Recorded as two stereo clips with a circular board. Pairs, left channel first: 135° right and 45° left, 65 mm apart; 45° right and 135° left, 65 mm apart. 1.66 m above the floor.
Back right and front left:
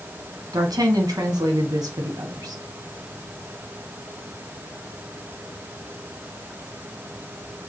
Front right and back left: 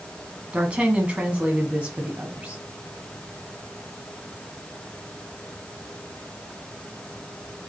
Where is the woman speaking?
60° left, 1.5 m.